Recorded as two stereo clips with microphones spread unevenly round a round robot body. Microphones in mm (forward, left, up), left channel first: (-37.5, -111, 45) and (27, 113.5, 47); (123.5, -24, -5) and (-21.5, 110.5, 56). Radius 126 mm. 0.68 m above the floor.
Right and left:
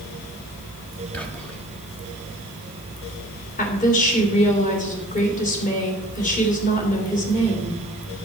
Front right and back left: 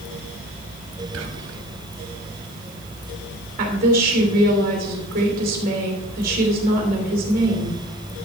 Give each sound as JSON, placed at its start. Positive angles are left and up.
{"t": 1.1, "sound": "whispering", "azimuth_deg": 170, "distance_m": 1.8}
{"t": 3.6, "sound": "a woman speaking", "azimuth_deg": -160, "distance_m": 3.0}